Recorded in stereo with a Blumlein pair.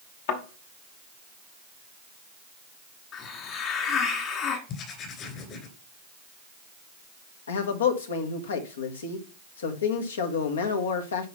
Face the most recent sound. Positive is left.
turn(degrees=65)